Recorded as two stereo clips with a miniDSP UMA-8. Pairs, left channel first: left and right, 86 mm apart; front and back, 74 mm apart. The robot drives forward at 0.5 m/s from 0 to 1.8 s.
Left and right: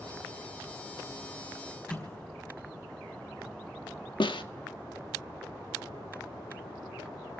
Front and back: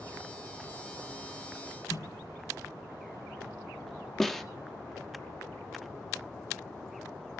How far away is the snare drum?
About 1.3 m.